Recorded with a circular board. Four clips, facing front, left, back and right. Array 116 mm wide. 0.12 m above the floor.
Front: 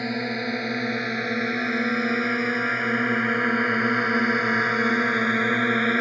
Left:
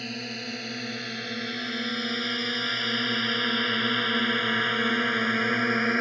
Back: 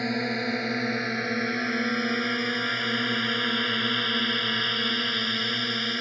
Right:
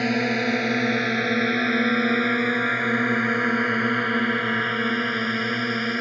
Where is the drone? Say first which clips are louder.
Right 14 dB, front 1 dB; 85° right; by 6.0 s 10° left.